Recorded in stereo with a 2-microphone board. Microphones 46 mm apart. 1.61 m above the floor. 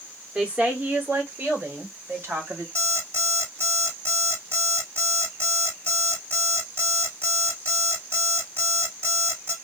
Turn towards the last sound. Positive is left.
turn(degrees=-60)  # may be behind; listen again after turning